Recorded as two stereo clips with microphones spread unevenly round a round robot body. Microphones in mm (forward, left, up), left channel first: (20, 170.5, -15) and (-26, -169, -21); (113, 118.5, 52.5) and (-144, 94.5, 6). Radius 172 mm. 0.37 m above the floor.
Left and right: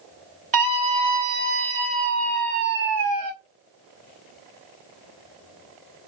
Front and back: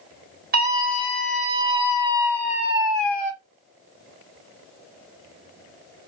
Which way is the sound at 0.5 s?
160° right.